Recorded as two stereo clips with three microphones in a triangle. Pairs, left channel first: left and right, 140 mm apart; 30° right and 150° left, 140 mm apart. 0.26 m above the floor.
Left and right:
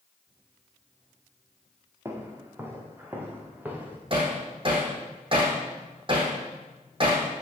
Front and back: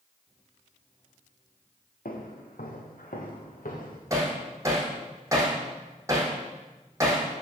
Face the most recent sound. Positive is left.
turn(degrees=-140)